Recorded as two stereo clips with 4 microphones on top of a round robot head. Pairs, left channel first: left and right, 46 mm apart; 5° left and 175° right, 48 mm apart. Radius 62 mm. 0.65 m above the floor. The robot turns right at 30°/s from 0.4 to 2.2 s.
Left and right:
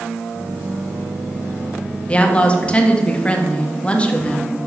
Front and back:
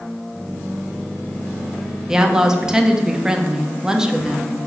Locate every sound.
2.1 s a woman speaking: 120° left, 1.1 m; by 4.6 s 125° left, 1.1 m